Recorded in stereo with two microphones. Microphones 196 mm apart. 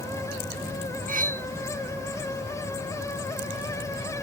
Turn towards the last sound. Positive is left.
turn(degrees=-45)  # may be behind; listen again after turning